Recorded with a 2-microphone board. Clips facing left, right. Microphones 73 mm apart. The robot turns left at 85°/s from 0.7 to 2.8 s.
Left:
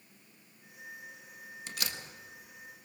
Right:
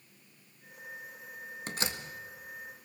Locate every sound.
1.7 s a door slam: 40° right (ahead or behind), 1.4 m; by 2.0 s 10° right (ahead or behind), 1.4 m